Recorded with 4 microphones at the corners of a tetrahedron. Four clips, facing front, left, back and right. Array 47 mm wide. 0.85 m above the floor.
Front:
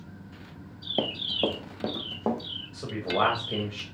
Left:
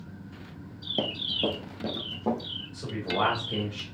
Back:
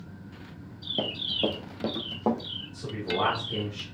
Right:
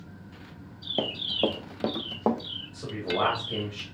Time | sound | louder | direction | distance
1.0 | running footsteps | right 1 dB, front 1 dB | 25° right | 1.0 m
2.7 | a man speaking | right 1 dB, front 3 dB | 15° right | 3.5 m